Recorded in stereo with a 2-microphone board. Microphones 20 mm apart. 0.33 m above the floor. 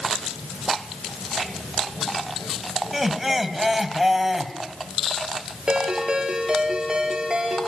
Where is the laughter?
5° right (ahead or behind), 2.5 m.